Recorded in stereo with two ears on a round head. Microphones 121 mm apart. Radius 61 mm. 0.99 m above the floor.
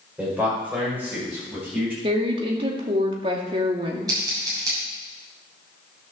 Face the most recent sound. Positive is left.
turn(degrees=-30)  # may be behind; listen again after turning